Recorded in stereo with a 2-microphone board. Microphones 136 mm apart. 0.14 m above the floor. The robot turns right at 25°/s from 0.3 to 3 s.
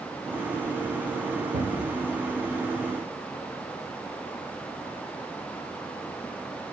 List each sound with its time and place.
1.5 s a cupboard door: 70° right (ahead or behind), 2.5 m; by 2.0 s 80° right, 2.5 m